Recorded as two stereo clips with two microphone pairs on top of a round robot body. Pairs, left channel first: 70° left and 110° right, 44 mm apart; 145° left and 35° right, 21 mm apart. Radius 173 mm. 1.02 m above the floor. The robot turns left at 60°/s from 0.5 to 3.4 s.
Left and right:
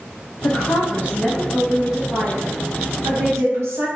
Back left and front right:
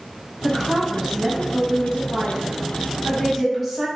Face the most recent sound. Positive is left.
turn(degrees=-120)